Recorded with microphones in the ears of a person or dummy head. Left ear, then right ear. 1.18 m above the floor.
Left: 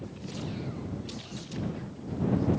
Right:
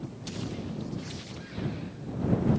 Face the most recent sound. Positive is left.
No sound to turn to.